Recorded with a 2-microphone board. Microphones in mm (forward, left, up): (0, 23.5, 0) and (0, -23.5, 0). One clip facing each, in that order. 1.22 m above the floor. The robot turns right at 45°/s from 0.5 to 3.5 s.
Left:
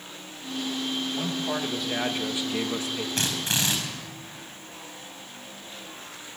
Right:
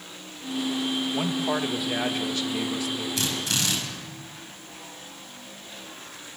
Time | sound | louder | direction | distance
1.1 | a man speaking | right 3 dB | 40° right | 1.9 m
3.2 | a drill | left 2 dB | 45° left (ahead or behind) | 4.5 m